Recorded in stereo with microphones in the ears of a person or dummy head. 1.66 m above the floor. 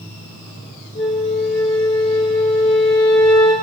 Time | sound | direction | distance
0.9 | a flute | 35° left (ahead or behind) | 3 m